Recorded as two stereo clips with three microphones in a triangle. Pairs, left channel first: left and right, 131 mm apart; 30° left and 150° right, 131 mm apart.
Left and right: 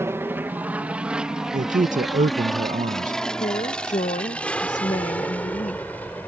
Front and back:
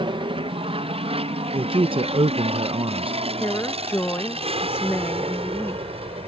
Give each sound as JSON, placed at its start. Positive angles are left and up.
{"t": 0.0, "sound": "an aircraft", "azimuth_deg": -150}
{"t": 1.5, "sound": "a man speaking", "azimuth_deg": -105}
{"t": 3.4, "sound": "a woman speaking", "azimuth_deg": 100}